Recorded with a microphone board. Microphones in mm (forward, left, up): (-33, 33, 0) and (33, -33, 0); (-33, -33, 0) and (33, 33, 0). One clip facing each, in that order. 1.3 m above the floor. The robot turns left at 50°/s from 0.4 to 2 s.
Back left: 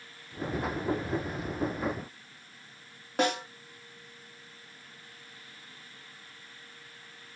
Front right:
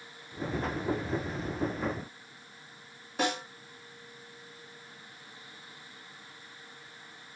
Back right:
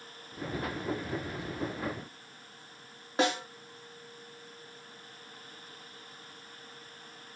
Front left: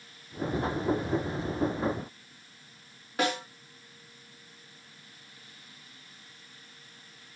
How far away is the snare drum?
About 2.5 m.